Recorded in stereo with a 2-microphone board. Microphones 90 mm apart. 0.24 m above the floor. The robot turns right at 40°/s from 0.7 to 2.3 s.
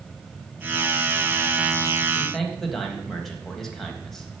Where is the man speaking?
Centre (ahead or behind), 1.0 m; by 4.3 s 5° left (ahead or behind), 1.0 m.